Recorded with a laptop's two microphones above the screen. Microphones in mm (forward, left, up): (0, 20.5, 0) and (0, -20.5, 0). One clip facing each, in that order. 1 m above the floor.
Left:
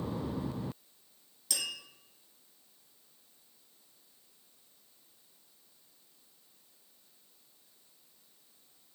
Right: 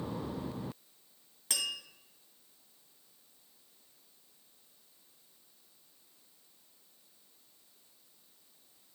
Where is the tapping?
45° right (ahead or behind), 1.7 m.